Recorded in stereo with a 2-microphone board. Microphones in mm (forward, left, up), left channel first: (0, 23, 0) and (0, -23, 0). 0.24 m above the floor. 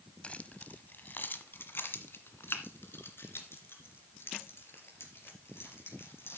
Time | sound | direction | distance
0.2 | keys jangling | 30° left (ahead or behind) | 0.9 m